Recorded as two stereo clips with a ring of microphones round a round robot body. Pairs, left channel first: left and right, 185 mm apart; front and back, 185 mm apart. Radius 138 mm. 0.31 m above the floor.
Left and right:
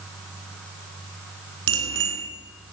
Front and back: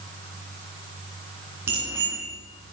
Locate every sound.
1.7 s a bicycle bell: 100° right, 3 m